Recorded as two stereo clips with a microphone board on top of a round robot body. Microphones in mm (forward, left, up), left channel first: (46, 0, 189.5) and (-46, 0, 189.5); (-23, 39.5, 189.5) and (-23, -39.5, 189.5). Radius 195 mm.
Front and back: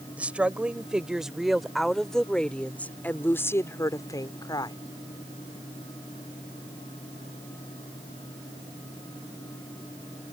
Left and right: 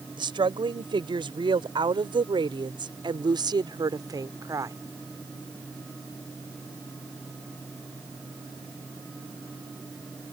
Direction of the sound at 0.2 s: 105° right.